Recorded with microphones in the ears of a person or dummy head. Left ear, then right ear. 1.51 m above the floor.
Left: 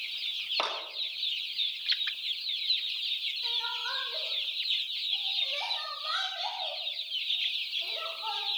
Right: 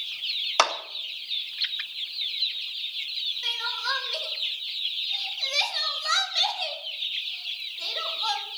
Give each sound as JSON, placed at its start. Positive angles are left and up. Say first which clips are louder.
{"t": 0.6, "sound": "a clap", "louder": "right 11 dB", "side_deg": -55, "distance_m": 2.0}
{"t": 3.4, "sound": "crying", "louder": "right 4 dB", "side_deg": -75, "distance_m": 3.0}